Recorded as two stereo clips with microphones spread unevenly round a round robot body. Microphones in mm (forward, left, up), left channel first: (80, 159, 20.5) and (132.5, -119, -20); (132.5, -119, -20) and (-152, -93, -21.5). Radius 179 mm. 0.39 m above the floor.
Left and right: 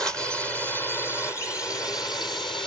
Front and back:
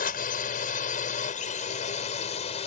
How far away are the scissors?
No scissors in this recording.